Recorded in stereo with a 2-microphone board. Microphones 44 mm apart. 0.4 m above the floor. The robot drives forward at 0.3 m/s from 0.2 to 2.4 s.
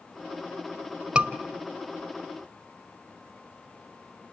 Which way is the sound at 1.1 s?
20° right (ahead or behind).